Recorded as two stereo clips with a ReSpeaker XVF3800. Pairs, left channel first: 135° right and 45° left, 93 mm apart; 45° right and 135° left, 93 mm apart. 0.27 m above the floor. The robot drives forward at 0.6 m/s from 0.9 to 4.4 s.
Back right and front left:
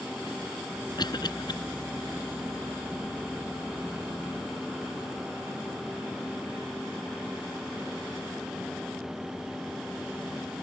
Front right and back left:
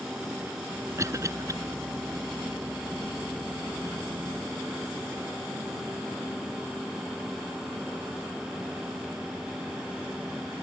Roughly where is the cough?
Behind.